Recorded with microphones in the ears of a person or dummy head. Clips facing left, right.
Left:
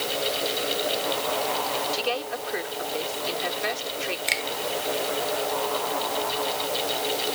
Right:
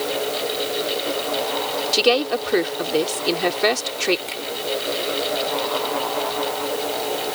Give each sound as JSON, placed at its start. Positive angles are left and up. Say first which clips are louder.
{"t": 1.9, "sound": "a woman speaking", "louder": "right 10 dB", "side_deg": -75}
{"t": 4.3, "sound": "a finger snap", "louder": "right 1 dB", "side_deg": 30}